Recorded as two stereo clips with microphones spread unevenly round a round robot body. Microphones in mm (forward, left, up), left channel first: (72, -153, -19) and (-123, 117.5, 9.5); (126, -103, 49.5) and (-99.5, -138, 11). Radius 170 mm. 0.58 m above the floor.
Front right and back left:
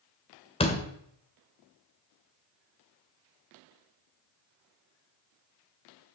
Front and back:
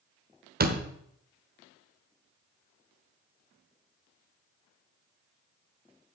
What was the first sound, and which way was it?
A door slam, 125° right.